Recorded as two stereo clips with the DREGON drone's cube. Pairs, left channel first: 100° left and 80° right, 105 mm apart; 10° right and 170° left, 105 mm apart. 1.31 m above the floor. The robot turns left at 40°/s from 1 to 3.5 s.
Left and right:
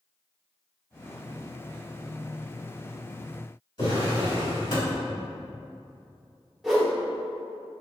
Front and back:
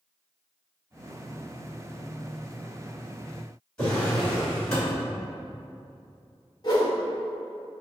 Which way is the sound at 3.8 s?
70° left.